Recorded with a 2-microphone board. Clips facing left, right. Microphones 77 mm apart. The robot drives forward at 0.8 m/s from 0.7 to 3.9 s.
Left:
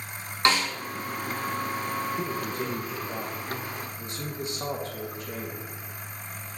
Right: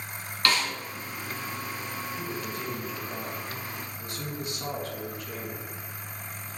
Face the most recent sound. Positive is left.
turn(degrees=25)  # may be behind; listen again after turning